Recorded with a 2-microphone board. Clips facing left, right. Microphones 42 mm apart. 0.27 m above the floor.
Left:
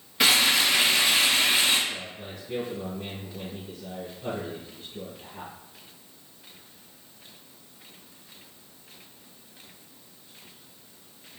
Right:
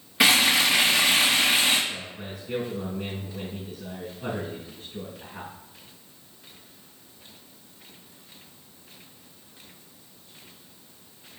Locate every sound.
0.2 s frying: 15° right (ahead or behind), 4 m
1.9 s a man speaking: 50° right (ahead or behind), 3 m